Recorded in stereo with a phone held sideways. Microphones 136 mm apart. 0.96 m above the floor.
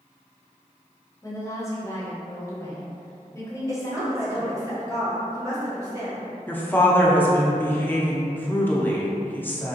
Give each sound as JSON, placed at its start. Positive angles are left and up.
{"t": 1.2, "sound": "a woman speaking", "side_deg": 20, "distance_m": 0.7}
{"t": 3.7, "sound": "a woman speaking", "side_deg": -25, "distance_m": 1.2}
{"t": 6.5, "sound": "a woman speaking", "side_deg": 15, "distance_m": 0.5}